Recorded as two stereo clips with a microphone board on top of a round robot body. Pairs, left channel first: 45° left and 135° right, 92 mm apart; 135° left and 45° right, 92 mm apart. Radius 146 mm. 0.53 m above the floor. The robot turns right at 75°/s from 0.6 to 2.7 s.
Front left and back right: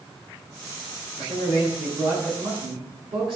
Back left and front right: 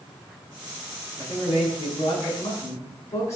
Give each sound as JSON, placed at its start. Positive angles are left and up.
{"t": 1.2, "sound": "a man speaking", "azimuth_deg": 80, "distance_m": 7.0}